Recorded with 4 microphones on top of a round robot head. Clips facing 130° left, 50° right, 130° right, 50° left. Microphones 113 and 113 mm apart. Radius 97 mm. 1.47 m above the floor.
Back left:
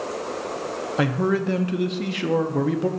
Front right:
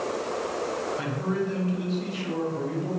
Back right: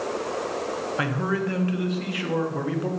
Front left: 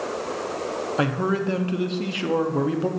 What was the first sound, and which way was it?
A man speaking, 115° left.